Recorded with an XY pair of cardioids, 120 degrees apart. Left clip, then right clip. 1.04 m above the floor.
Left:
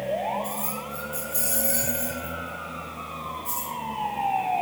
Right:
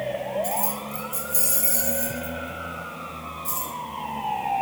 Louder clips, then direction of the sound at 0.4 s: Right 4 dB; 40° right.